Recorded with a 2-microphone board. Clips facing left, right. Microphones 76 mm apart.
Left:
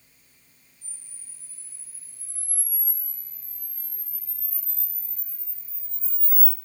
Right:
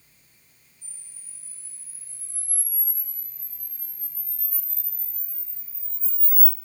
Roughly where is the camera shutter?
Centre.